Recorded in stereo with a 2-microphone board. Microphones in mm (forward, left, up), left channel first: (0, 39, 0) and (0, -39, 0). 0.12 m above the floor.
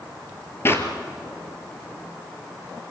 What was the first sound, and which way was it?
A clap, 30° left (ahead or behind).